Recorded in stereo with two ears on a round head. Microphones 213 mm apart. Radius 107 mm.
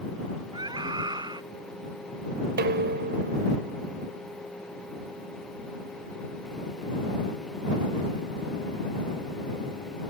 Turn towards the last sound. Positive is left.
turn(degrees=-45)  # may be behind; listen again after turning